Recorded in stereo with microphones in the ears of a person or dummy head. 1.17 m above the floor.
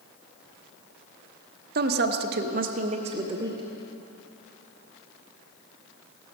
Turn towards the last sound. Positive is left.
turn(degrees=-15)  # may be behind; listen again after turning